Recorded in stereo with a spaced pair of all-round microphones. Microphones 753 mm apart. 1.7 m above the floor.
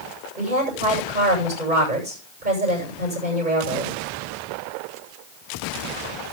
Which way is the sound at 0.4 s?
70° right (ahead or behind).